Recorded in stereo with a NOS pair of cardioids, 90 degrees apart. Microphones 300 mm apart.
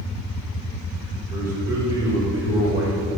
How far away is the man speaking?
About 4.5 m.